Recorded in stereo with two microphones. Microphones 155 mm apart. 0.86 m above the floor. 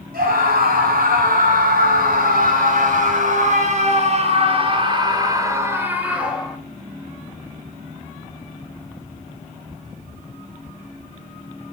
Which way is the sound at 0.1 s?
85° right.